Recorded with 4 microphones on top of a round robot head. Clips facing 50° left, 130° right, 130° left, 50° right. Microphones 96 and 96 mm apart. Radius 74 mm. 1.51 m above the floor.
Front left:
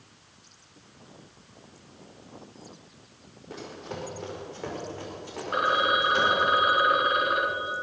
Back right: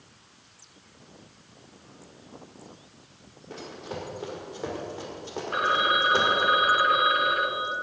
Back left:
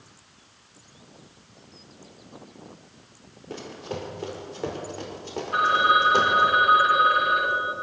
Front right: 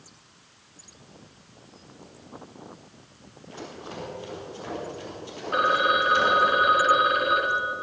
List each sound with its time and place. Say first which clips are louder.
3.5 s running footsteps: back right 1 dB, back left 4 dB; 140° left, 5 m; by 6.5 s 175° left, 6 m
5.5 s a phone ringing: even, back left 2 dB; 15° right, 1.5 m